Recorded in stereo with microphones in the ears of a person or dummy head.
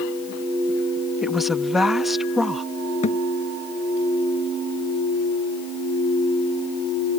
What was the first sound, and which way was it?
A woman speaking, 5° right (ahead or behind).